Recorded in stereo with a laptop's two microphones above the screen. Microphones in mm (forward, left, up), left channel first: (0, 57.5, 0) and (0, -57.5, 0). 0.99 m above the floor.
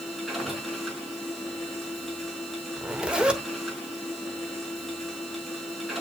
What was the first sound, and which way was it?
A machine running, centre (ahead or behind).